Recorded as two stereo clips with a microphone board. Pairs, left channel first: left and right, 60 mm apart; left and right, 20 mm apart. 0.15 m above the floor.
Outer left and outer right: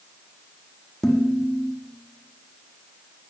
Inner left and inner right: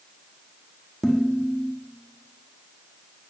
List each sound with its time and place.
1.0 s dishes clattering: 10° left (ahead or behind), 4 m